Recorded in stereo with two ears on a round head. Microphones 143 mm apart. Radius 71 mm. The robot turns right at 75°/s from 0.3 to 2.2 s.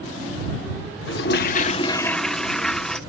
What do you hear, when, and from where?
1.1 s a toilet flushing: 90° left; by 3.0 s 175° left